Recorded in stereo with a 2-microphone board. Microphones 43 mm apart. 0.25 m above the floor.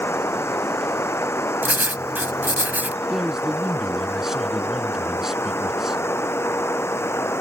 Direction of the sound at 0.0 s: 85° left.